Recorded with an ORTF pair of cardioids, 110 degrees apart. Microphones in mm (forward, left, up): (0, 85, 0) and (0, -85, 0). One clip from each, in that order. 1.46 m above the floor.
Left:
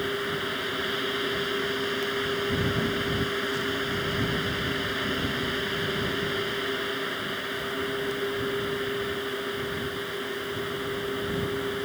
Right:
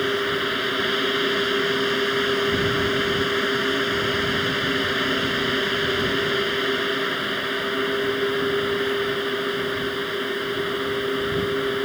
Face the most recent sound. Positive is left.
turn(degrees=-40)